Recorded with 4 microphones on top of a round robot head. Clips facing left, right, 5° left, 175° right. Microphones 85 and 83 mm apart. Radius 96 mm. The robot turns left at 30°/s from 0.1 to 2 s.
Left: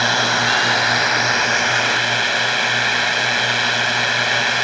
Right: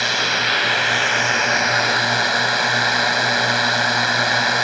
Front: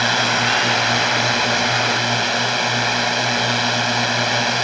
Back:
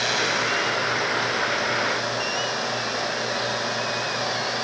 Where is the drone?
40° left; by 4.6 s 20° right.